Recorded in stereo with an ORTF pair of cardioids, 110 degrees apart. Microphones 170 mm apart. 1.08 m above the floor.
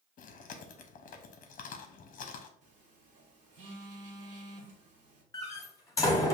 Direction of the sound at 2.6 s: 50° right.